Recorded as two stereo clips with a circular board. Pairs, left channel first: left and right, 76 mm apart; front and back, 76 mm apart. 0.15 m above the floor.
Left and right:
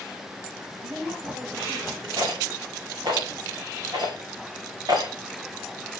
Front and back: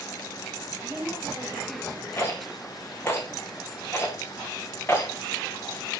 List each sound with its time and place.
0.8 s a woman speaking: 120° right, 4 m; by 2.1 s 105° right, 4.5 m
2.2 s a rattle: 60° right, 4 m